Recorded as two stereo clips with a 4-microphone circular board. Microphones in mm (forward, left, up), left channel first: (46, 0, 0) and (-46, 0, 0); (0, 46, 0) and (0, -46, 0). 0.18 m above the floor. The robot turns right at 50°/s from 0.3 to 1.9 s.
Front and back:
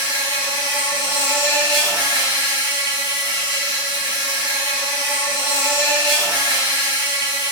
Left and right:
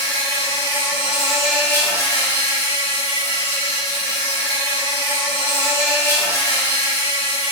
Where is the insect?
50° right, 1.2 m; by 7.5 s 30° left, 1.2 m.